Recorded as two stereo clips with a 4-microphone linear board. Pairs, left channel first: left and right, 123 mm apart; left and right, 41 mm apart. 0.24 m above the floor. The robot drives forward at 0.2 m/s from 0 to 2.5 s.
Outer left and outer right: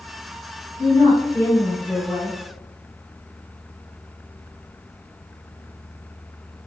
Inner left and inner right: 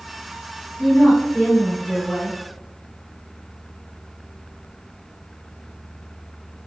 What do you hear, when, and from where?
0.8 s a woman speaking: 30° left (ahead or behind), 1.5 m; by 2.4 s 25° left (ahead or behind), 1.7 m